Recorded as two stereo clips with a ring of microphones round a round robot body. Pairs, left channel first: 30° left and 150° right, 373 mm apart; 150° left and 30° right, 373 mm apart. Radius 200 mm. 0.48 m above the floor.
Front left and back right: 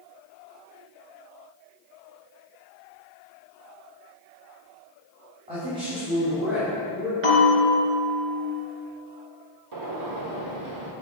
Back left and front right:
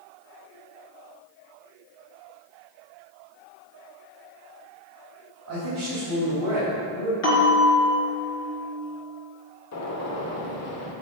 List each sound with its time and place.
5.5 s a man speaking: 75° right, 3.5 m; by 7.1 s 65° right, 4.5 m
7.2 s a bell: 160° right, 3.5 m
9.7 s a gunshot: 170° right, 1.5 m